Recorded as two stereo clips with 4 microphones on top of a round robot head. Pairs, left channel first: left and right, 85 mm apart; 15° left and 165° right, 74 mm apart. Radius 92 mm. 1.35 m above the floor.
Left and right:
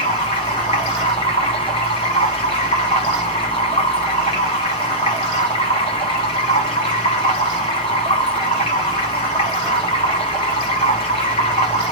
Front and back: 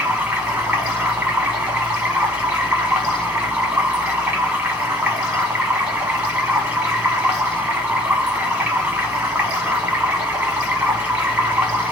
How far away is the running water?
About 1.2 m.